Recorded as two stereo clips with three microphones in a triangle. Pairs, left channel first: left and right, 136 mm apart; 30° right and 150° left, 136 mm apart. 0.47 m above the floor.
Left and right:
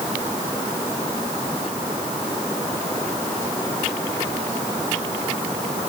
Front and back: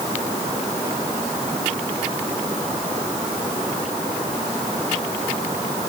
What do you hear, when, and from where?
Only background noise.